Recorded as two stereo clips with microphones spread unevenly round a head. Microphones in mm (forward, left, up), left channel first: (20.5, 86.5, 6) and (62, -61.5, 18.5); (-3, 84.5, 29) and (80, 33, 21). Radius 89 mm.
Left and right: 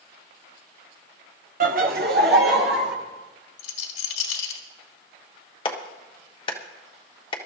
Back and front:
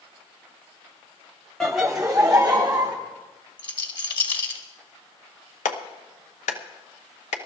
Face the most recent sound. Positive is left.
turn(degrees=170)